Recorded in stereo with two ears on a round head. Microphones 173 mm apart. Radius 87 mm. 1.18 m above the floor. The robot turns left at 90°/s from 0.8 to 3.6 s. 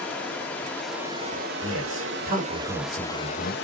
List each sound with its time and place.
0.0 s running water: 10° left, 2 m; by 3.6 s 115° left, 2 m
1.6 s a man speaking: 80° right, 5 m; by 3.5 s 75° left (ahead or behind), 5 m